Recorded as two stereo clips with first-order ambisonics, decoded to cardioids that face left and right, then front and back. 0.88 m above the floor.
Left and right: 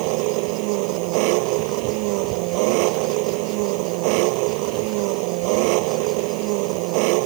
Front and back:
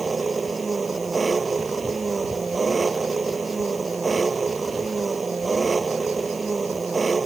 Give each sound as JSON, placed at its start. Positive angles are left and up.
{"t": 0.0, "sound": "an engine running", "azimuth_deg": -105}